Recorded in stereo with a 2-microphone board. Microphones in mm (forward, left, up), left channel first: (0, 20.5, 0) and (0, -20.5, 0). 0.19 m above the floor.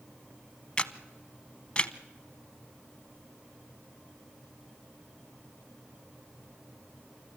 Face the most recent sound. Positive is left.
turn(degrees=25)  # may be behind; listen again after turning